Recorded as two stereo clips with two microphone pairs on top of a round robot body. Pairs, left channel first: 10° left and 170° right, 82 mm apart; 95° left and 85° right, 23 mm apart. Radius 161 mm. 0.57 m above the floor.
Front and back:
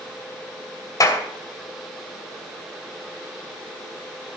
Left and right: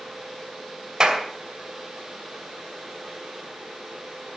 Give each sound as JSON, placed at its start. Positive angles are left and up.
{"t": 1.0, "sound": "a clap", "azimuth_deg": -35, "distance_m": 2.5}